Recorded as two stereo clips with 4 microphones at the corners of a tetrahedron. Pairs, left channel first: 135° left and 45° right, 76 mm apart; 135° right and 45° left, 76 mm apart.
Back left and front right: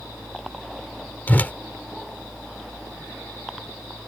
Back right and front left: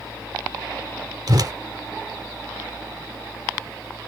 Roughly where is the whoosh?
Left.